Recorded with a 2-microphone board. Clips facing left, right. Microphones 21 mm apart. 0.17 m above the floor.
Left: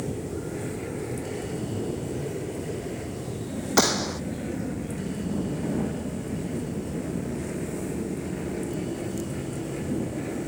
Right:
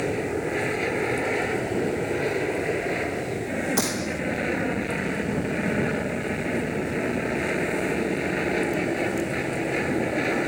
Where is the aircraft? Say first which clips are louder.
Right 6 dB; 60° right (ahead or behind).